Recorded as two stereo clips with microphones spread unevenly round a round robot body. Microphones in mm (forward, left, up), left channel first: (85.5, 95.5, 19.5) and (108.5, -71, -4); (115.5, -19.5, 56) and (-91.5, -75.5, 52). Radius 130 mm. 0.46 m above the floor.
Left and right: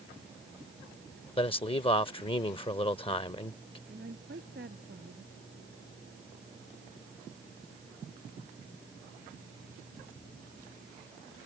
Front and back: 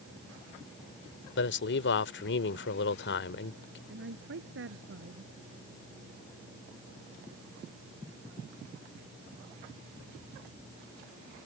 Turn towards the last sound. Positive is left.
turn(degrees=-135)